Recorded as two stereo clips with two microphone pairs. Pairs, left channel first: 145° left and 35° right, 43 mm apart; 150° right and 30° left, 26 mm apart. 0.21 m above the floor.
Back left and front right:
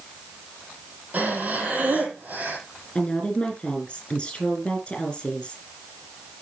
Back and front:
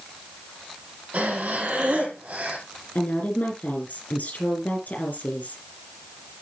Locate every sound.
1.1 s breathing: 20° left, 4.5 m
3.0 s a woman speaking: 145° right, 5.5 m